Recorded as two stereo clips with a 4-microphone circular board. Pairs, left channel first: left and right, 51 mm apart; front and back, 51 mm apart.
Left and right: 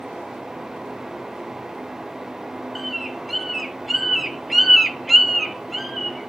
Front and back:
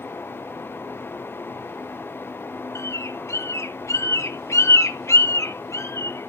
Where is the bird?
Straight ahead, 0.9 m.